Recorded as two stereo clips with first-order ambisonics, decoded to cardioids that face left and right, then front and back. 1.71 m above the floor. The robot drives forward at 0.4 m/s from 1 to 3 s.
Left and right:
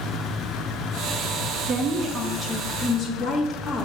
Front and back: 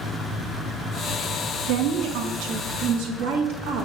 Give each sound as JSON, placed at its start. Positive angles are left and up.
{"t": 1.7, "sound": "a woman speaking", "azimuth_deg": -160, "distance_m": 0.5}